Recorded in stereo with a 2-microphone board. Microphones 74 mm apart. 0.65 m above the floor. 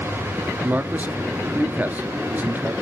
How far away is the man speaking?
About 1.1 m.